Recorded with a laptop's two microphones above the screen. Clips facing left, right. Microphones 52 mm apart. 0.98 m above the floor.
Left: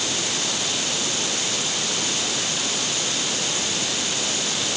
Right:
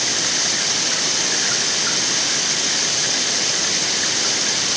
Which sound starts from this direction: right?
Running water, at 0.0 s.